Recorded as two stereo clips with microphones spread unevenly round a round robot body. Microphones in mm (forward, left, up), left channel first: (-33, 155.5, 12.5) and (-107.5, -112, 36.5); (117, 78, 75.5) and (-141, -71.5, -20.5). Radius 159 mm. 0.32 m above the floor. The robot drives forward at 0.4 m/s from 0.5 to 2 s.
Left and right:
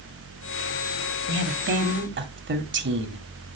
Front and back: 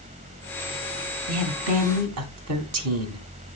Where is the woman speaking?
150° right, 1.8 m; by 3.2 s 155° right, 2.0 m.